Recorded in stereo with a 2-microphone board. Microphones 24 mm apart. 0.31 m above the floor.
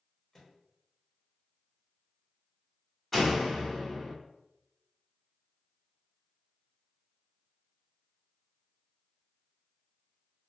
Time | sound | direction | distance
0.3 | a microwave | 20° left (ahead or behind) | 1.1 m
3.1 | a door slam | 15° left (ahead or behind) | 1.2 m